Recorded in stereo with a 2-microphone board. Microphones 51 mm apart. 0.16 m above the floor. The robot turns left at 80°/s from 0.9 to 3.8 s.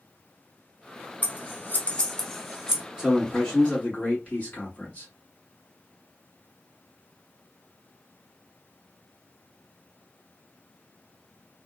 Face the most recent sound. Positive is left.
turn(degrees=130)